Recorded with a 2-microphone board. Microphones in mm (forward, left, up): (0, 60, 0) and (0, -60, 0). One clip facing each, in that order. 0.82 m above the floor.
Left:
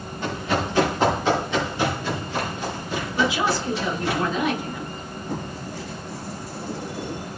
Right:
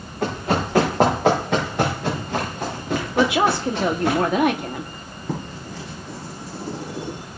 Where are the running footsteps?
60° right (ahead or behind), 5.5 m; by 4.2 s 80° right, 6.5 m.